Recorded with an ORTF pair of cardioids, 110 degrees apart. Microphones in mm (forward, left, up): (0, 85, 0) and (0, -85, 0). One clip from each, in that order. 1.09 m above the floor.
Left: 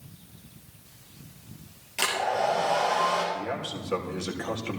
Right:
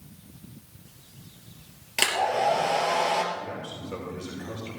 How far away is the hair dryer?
About 3.5 m.